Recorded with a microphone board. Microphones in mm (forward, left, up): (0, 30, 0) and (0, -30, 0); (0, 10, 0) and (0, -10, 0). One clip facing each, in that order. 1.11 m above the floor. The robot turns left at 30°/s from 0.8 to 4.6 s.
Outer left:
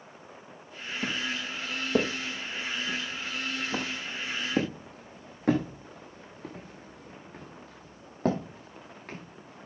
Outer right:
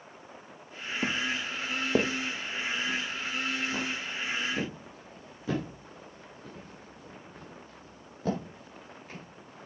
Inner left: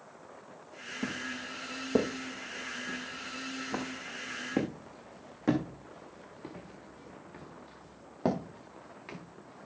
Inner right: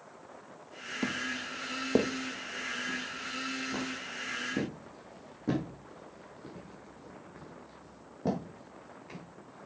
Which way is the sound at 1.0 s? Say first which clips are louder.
Outer right 2 dB, inner right 3 dB; 35° right (ahead or behind).